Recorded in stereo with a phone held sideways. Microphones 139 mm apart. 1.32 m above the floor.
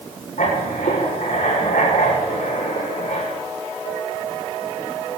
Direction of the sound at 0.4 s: 85° left.